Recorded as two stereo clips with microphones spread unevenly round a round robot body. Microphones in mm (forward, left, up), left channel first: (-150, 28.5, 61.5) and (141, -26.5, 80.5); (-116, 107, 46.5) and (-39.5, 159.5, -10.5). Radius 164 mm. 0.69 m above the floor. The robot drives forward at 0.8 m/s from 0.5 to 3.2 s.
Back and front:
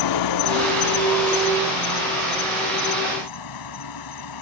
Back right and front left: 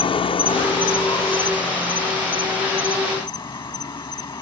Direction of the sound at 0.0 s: 175° right.